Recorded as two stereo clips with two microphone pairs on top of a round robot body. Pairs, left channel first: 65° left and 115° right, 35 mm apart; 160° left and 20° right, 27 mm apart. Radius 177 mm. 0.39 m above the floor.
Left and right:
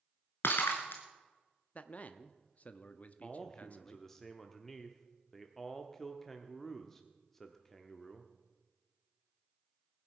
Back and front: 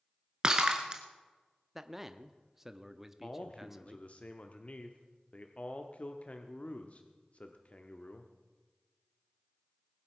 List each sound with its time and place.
0.4 s breaking glass: 45° left, 0.8 m
1.8 s a man speaking: 65° left, 0.9 m
3.2 s a man speaking: 150° left, 1.1 m